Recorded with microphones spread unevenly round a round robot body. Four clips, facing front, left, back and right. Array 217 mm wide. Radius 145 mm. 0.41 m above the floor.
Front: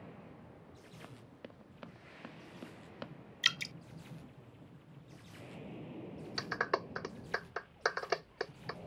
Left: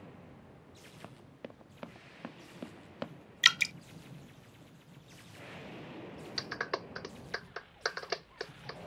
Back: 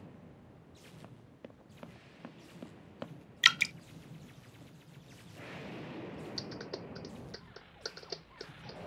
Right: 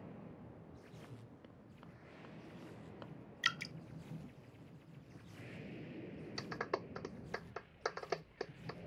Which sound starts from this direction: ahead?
A clap, at 6.4 s.